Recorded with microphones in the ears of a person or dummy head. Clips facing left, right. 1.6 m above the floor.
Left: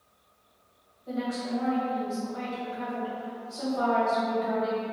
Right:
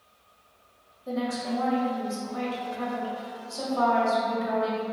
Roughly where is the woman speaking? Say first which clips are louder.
Right 2 dB; right.